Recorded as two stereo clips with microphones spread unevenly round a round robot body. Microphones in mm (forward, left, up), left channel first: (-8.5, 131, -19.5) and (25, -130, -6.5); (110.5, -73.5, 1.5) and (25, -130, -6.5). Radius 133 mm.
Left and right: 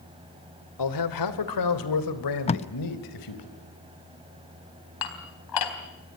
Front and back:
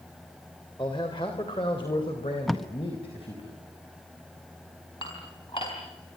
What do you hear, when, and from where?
0.8 s a man speaking: 105° left, 2.5 m
2.5 s tape being pulled: 130° left, 0.5 m
5.0 s dishes clattering: 105° left, 3.5 m